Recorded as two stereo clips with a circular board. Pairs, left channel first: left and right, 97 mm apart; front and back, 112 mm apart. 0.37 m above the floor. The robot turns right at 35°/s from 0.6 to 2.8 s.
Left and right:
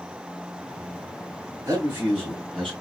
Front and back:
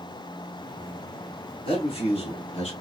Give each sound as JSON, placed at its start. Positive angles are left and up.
{"t": 1.6, "sound": "a man speaking", "azimuth_deg": -25, "distance_m": 3.0}